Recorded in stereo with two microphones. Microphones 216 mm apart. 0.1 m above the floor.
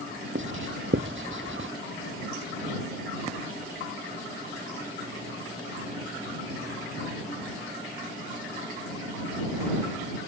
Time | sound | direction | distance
0.3 | writing | 65° right (ahead or behind) | ?